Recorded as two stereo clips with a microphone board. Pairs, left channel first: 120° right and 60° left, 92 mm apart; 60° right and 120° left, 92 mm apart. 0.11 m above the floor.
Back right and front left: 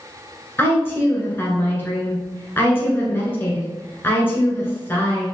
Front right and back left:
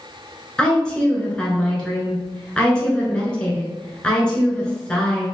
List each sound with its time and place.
0.6 s a woman speaking: 125° right, 1.2 m